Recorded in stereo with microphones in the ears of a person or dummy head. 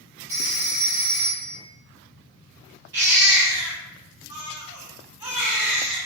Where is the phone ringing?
15° right (ahead or behind), 1.1 m.